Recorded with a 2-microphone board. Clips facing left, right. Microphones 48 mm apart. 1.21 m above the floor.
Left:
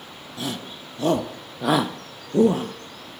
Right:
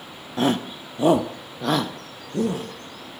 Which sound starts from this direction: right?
A shout, at 0.4 s.